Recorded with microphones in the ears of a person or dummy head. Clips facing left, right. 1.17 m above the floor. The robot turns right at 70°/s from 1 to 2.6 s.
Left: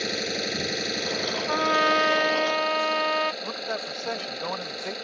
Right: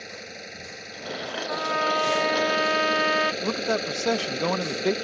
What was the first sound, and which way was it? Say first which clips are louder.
An engine running: left 11 dB; 110° left.